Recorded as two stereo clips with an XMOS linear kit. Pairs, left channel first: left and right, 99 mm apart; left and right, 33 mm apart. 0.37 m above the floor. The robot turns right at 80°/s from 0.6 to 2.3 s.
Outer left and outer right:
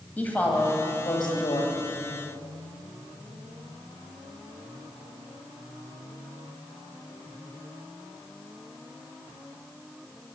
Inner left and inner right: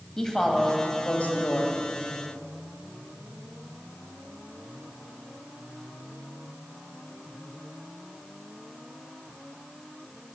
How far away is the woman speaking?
About 2 m.